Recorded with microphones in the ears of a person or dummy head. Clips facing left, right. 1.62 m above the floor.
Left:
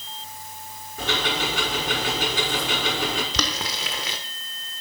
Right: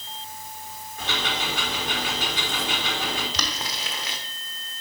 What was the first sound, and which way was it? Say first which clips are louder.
Ticking: left 4 dB; 35° left (ahead or behind).